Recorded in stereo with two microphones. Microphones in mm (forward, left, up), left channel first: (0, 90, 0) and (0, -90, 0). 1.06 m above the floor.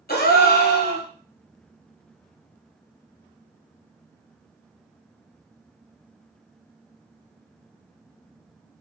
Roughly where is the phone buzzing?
I don't hear a phone buzzing.